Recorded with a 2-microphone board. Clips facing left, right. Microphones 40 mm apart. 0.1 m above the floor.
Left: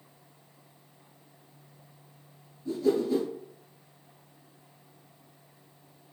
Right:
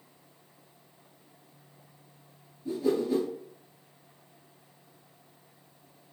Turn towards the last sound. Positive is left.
turn(degrees=-25)  # may be behind; listen again after turning